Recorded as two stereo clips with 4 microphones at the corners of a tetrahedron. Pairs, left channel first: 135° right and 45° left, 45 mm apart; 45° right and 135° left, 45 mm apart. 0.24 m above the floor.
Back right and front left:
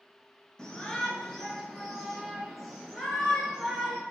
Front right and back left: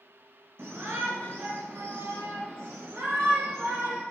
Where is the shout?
150° left, 3.5 m; by 4.0 s 125° left, 5.5 m.